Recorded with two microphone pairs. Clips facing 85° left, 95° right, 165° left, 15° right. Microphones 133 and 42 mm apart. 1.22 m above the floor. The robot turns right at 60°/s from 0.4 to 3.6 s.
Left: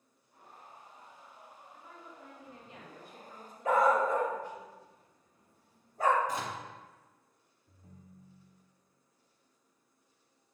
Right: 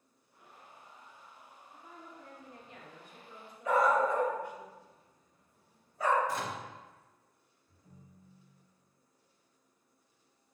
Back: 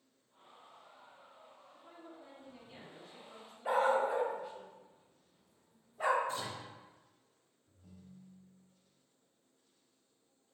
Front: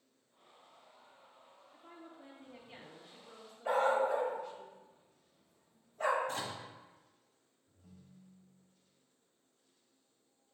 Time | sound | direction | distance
1.7 | a woman speaking | 25° right | 2.5 m
3.6 | a dog barking | 90° left | 1.0 m
6.3 | a microwave | 15° left | 1.2 m
7.7 | a ringtone | 85° left | 1.0 m